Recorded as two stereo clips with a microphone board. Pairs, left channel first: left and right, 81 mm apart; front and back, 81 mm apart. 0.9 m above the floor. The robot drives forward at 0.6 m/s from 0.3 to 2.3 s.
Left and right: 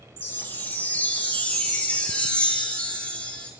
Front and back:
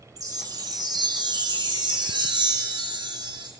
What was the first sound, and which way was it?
A chime, 145° left.